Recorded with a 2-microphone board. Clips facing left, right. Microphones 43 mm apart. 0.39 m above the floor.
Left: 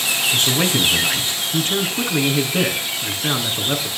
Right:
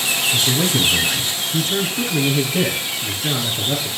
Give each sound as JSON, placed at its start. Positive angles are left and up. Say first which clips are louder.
{"t": 0.3, "sound": "a man speaking", "louder": "left 1 dB", "side_deg": 55, "distance_m": 3.0}